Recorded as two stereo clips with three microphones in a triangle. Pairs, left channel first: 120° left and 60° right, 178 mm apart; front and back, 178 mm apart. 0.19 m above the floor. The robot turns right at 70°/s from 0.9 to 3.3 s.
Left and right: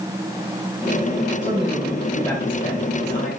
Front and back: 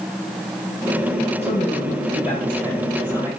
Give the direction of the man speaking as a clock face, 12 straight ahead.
1 o'clock.